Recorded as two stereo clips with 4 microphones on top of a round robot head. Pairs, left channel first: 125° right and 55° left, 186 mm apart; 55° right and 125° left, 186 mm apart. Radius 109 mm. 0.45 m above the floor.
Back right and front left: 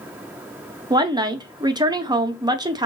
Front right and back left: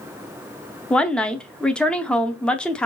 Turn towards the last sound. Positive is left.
turn(degrees=25)